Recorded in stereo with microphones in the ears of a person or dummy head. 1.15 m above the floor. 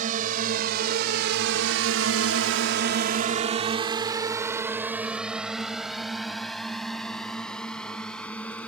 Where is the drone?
50° right (ahead or behind); by 8.7 s 10° left (ahead or behind).